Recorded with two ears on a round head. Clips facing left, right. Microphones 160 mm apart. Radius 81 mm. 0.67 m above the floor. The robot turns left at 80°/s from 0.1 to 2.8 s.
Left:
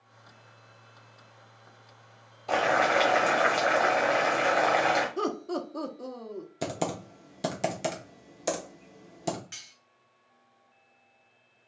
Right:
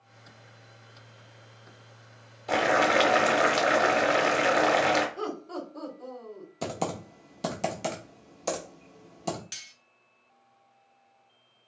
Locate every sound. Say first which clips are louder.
2.5 s boiling: right 1 dB; 10° right (ahead or behind), 0.8 m; by 5.1 s 30° right (ahead or behind), 0.8 m
5.2 s laughter: left 4 dB; 55° left (ahead or behind), 0.9 m
6.6 s typing on a keyboard: even; 10° left (ahead or behind), 0.7 m
9.5 s cutlery clinking: even; 45° right (ahead or behind), 1.1 m